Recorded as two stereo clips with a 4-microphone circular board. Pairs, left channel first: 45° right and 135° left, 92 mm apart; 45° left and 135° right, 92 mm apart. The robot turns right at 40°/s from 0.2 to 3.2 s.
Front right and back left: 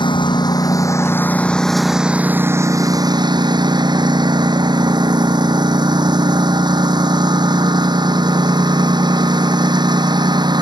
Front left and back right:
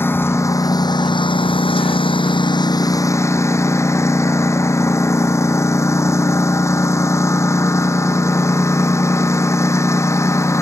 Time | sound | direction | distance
0.0 | a lawn mower | 20° right | ?